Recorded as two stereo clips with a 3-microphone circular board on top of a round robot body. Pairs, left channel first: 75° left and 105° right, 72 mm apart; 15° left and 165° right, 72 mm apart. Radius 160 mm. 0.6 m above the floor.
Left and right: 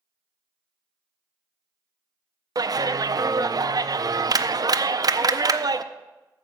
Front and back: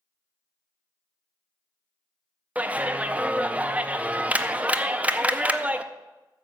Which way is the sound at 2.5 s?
95° right.